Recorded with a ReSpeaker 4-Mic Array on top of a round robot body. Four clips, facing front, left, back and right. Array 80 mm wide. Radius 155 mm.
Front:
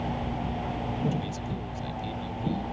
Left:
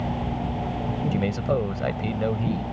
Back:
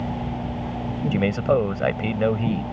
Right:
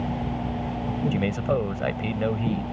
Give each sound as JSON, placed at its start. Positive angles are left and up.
{"t": 1.1, "sound": "a man speaking", "azimuth_deg": -175}